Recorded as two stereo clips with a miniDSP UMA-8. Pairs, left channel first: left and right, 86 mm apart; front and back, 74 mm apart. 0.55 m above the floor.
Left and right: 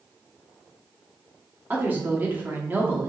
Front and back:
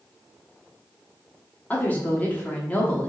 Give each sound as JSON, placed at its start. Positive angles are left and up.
{"t": 1.7, "sound": "a woman speaking", "azimuth_deg": -40, "distance_m": 0.9}